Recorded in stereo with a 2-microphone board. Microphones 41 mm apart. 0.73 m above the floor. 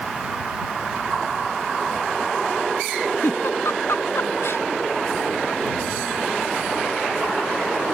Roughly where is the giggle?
Left.